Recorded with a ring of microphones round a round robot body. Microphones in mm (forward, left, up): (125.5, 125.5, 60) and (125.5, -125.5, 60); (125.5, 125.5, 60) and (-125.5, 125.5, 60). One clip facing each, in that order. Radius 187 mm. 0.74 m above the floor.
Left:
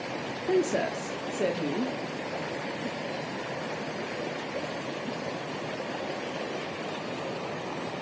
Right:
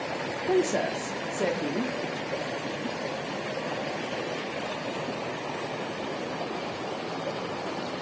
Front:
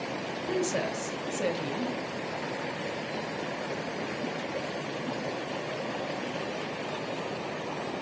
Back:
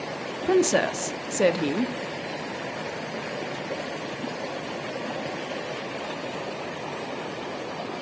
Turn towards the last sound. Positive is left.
turn(degrees=170)